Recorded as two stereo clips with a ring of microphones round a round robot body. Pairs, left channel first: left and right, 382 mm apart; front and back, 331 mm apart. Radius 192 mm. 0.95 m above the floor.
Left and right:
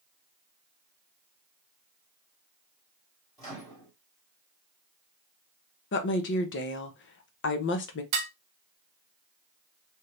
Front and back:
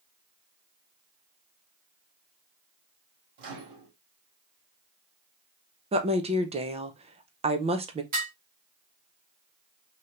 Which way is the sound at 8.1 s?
110° right.